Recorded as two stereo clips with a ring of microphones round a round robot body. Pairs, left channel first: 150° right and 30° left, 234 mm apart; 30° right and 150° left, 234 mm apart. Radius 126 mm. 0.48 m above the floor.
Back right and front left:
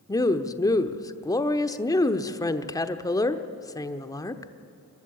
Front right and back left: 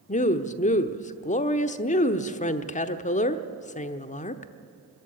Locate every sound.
0.1 s a woman speaking: 80° right, 1.0 m